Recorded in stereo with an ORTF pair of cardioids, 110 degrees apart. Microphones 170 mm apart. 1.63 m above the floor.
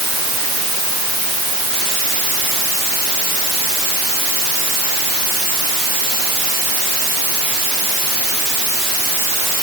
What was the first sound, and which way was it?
Only background noise.